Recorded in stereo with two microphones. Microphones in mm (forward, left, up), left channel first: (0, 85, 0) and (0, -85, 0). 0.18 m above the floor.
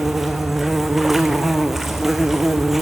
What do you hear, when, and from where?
0.0 s an insect: centre (ahead or behind), 1.0 m